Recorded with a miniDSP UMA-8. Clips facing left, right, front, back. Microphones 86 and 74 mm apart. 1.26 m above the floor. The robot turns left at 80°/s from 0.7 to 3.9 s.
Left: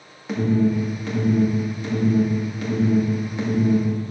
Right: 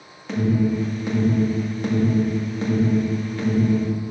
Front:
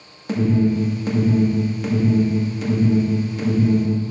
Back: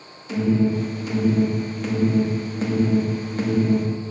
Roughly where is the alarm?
Ahead.